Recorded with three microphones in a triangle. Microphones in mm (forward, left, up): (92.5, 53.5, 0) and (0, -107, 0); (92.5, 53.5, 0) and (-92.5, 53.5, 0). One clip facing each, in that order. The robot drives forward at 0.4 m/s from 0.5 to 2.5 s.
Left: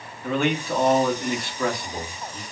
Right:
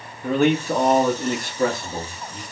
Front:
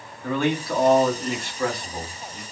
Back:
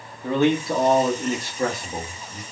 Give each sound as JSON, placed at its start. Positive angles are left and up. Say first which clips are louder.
{"t": 0.2, "sound": "a man speaking", "louder": "right 5 dB, back 4 dB", "azimuth_deg": -125, "distance_m": 0.9}